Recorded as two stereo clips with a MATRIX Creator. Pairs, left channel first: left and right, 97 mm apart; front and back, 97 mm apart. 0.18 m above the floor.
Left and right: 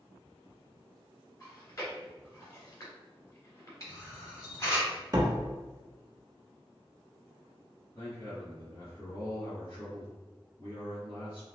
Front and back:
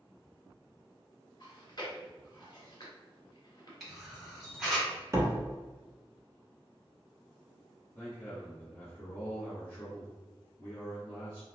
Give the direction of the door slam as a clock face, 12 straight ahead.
4 o'clock.